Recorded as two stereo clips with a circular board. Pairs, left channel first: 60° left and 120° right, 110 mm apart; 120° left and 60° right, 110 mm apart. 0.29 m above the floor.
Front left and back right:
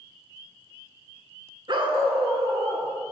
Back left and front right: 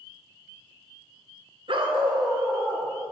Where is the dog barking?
80° right, 0.7 m; by 2.9 s 120° right, 1.3 m.